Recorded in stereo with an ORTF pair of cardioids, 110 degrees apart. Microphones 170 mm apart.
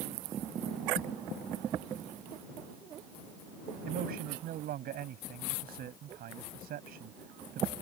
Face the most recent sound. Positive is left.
turn(degrees=-65)